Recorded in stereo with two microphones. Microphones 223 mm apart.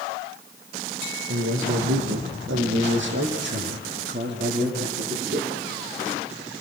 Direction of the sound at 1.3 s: 65° right (ahead or behind).